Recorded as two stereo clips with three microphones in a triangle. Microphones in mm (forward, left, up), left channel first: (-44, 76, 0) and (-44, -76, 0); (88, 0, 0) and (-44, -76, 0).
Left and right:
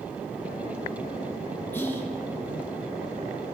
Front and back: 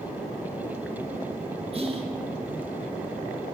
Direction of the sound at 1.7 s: 165° left.